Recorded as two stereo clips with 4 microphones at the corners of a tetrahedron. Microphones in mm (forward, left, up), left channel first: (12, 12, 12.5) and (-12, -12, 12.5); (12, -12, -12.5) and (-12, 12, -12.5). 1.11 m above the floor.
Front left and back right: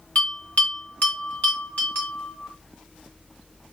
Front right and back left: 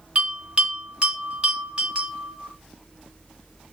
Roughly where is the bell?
Left.